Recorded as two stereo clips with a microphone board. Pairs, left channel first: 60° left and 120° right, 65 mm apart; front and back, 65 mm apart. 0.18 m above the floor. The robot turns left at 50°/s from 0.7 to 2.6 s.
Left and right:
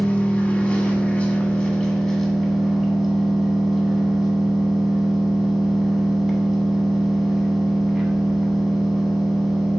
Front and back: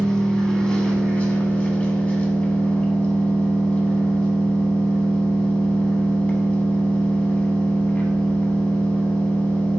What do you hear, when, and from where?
0.0 s an engine running: 60° left, 0.8 m; by 9.8 s 35° right, 0.8 m